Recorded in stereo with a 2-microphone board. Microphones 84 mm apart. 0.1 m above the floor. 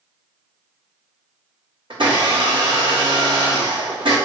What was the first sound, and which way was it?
A blender, 80° right.